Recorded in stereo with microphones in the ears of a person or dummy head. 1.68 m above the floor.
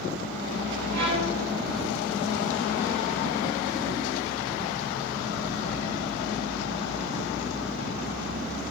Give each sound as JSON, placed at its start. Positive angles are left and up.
{"t": 0.9, "sound": "a violin", "side_deg": -55, "distance_m": 0.7}